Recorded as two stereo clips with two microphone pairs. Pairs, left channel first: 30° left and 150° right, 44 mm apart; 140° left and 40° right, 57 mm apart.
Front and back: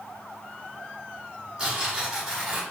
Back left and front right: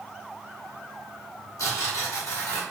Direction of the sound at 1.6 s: 140° left.